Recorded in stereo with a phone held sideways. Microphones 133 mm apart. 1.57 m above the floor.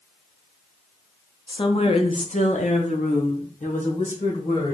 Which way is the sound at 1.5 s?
35° left (ahead or behind).